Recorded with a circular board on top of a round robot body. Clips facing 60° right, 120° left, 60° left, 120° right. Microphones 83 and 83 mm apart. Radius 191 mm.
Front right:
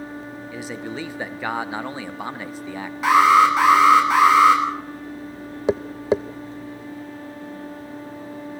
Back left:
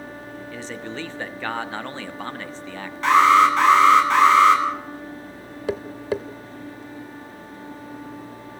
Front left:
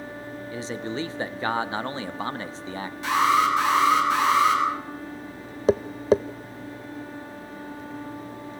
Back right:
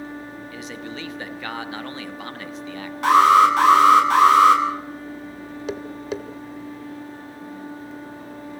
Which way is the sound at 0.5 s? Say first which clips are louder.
Front right 2 dB, front left 6 dB; 15° left.